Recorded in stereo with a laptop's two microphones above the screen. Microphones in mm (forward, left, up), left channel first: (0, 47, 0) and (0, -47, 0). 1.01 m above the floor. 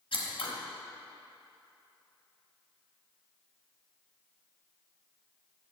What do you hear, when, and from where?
0.1 s scissors: 65° left (ahead or behind), 1.0 m